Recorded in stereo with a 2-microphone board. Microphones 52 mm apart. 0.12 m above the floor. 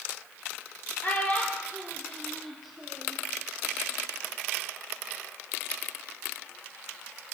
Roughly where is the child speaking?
Left.